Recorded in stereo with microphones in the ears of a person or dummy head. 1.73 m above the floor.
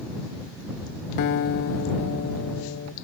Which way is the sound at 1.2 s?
50° left (ahead or behind).